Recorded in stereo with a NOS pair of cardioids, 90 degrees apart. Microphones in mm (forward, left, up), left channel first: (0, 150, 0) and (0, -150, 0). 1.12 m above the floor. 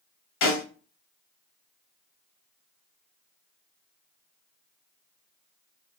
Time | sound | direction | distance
0.4 | a snare drum | 70° left | 1.3 m